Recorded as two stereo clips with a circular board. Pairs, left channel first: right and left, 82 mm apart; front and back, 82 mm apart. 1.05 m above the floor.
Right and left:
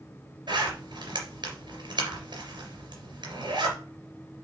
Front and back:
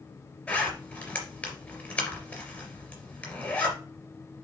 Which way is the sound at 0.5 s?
75° left.